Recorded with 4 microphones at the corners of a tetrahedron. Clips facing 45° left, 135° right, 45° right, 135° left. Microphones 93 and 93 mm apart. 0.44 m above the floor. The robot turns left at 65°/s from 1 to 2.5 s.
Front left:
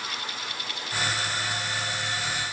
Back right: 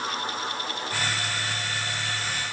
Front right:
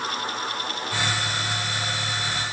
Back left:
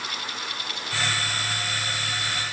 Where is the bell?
I don't hear a bell.